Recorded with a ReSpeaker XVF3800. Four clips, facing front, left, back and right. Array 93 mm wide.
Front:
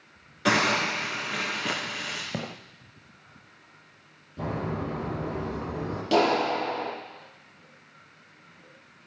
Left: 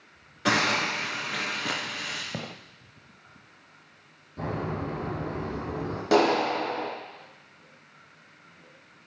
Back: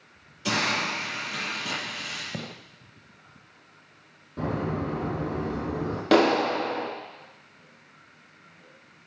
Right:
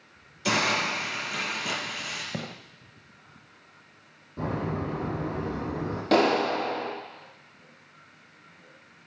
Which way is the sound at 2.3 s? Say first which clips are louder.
Right 1 dB, front 3 dB; 5° left.